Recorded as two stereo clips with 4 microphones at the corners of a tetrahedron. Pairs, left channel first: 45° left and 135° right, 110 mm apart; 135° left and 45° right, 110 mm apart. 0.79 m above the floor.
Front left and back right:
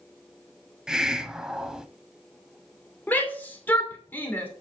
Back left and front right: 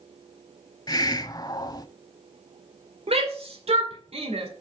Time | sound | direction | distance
0.9 | a hiss | 145° left | 0.7 m
3.1 | a shout | 30° right | 2.5 m